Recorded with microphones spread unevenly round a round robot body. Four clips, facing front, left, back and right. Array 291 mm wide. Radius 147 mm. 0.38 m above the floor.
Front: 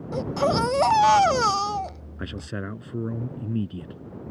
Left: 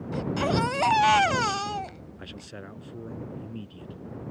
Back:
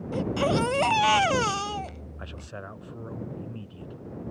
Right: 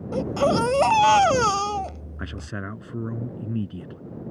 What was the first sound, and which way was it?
A baby crying, 85° right.